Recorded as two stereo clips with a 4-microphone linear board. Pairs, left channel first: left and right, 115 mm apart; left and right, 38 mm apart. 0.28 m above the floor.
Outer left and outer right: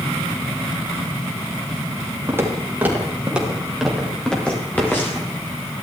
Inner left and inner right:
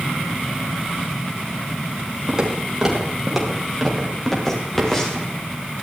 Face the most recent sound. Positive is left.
turn(degrees=20)  # may be behind; listen again after turning